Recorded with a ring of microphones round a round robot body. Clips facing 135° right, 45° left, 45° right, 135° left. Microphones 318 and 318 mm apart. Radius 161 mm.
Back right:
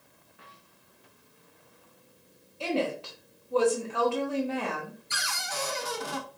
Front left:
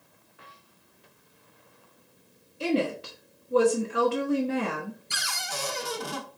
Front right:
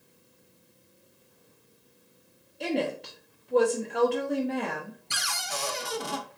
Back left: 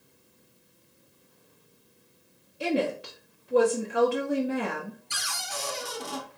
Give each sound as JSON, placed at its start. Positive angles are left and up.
{"t": 2.6, "sound": "a woman speaking", "azimuth_deg": 65, "distance_m": 1.0}
{"t": 5.1, "sound": "a cupboard door", "azimuth_deg": -10, "distance_m": 0.7}